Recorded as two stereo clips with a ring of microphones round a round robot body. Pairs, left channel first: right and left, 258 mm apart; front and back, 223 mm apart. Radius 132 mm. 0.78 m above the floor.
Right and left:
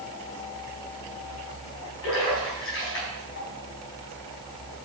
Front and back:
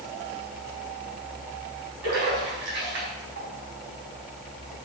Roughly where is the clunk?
No clunk in this recording.